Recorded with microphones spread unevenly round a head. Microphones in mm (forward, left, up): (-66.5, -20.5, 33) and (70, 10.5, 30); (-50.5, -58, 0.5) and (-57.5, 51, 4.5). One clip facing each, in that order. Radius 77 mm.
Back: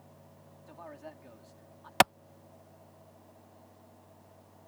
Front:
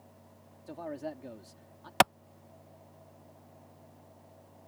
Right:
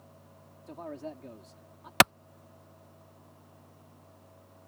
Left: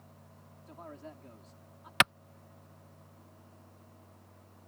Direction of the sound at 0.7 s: 30° right.